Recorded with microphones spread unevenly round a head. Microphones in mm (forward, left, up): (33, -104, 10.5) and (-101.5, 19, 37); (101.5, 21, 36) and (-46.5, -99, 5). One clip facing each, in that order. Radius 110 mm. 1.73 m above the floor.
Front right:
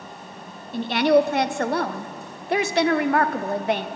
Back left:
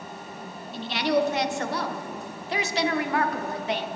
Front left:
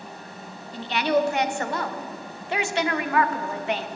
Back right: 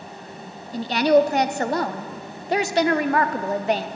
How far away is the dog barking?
No dog barking in this recording.